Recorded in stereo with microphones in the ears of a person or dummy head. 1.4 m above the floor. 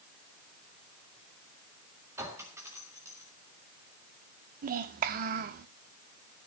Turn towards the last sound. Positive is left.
turn(degrees=-40)  # may be behind; listen again after turning